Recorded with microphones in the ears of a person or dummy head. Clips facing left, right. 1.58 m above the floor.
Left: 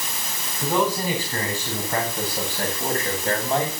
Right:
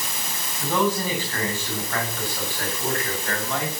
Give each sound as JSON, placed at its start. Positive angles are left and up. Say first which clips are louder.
{"t": 0.6, "sound": "a man speaking", "louder": "left 1 dB", "side_deg": 10, "distance_m": 9.0}